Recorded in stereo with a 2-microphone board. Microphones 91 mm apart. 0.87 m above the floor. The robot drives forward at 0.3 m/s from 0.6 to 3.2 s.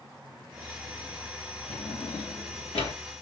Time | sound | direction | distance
1.7 | a drawer | 85° left | 1.1 m